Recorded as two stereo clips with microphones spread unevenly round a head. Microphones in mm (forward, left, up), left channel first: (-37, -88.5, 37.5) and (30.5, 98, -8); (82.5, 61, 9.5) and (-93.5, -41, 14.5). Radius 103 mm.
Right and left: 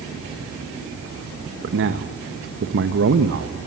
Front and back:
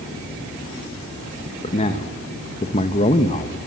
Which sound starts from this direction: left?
A man speaking, at 1.6 s.